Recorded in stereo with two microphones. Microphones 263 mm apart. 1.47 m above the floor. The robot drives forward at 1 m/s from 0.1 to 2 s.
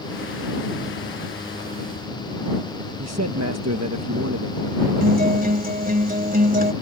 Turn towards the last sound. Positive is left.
turn(degrees=-35)  # may be behind; listen again after turning